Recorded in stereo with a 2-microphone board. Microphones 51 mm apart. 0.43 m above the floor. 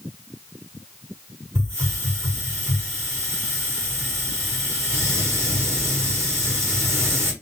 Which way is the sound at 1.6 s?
60° right (ahead or behind).